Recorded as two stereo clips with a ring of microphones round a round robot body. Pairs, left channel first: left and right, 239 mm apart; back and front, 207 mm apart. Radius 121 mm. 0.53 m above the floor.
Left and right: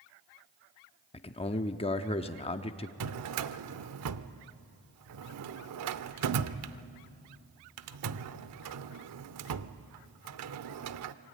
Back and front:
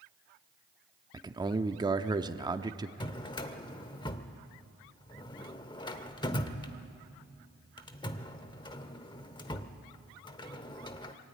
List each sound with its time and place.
1.1 s a man speaking: 50° left, 0.8 m
3.0 s a drawer: 110° right, 0.8 m